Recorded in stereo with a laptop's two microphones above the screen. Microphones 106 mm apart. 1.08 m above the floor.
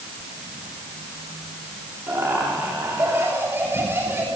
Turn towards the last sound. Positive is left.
turn(degrees=-20)  # may be behind; listen again after turning